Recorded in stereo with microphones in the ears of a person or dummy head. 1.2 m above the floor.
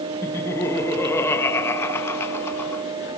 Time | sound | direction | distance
0.2 | laughter | 15° left (ahead or behind) | 1.6 m